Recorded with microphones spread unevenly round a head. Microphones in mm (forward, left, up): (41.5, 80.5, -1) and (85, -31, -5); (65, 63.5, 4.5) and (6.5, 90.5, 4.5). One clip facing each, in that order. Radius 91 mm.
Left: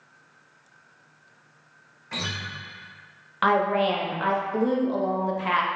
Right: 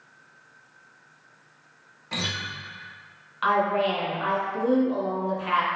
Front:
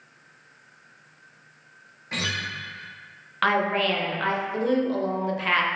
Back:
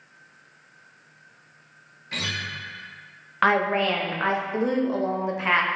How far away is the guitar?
About 0.8 m.